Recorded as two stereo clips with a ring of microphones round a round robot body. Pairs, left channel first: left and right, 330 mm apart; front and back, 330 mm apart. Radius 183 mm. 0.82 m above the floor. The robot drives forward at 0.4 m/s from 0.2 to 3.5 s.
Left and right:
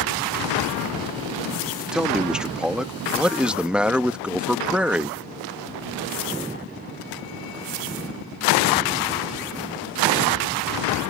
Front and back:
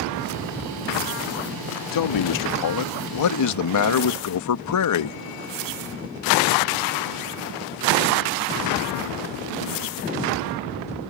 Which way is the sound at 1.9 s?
Straight ahead.